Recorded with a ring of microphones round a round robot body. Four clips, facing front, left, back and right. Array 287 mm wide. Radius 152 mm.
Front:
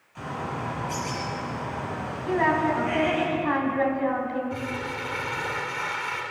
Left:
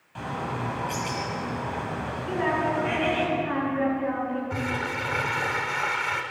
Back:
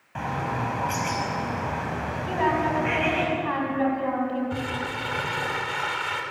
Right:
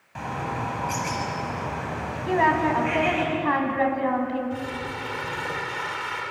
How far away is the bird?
About 5.5 m.